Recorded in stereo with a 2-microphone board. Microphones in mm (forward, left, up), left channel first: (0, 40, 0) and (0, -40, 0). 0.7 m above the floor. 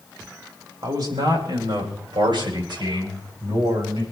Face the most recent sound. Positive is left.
turn(degrees=-65)  # may be behind; listen again after turning